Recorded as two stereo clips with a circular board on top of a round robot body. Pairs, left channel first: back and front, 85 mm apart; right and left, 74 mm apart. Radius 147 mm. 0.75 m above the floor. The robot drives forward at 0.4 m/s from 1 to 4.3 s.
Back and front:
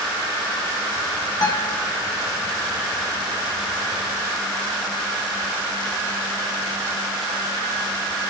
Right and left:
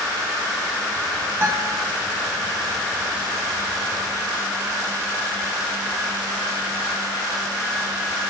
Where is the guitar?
145° left, 1.2 m; by 1.9 s 150° left, 1.4 m.